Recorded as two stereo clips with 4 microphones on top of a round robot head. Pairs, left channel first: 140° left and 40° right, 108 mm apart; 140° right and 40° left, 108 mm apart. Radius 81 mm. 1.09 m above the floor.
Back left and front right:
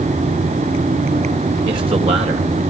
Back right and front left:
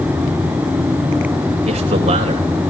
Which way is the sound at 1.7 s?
5° left.